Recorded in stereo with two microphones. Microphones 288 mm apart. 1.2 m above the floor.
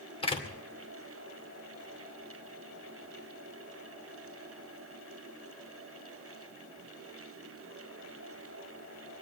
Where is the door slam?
20° left (ahead or behind), 2.5 m.